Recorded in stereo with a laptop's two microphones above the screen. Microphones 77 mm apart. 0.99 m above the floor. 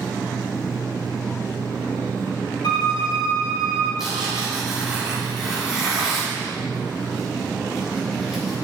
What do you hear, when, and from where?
0.0 s a machine running: 65° right (ahead or behind), 2.0 m
2.6 s a violin: 60° left (ahead or behind), 1.1 m
4.0 s tearing paper: 5° right (ahead or behind), 1.7 m